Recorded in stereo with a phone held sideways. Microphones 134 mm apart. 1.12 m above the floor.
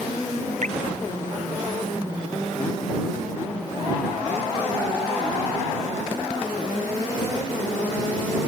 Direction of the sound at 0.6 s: 65° right (ahead or behind).